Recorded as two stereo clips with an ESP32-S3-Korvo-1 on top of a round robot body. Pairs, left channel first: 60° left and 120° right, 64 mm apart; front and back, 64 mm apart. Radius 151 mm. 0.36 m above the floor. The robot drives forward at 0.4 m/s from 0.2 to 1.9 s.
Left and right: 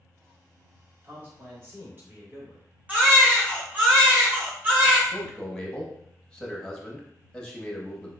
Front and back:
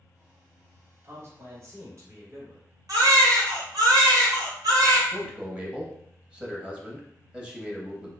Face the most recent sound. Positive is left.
turn(degrees=125)